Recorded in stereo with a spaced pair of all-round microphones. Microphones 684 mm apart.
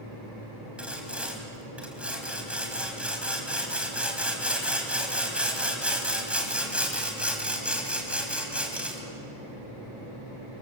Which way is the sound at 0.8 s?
Centre (ahead or behind).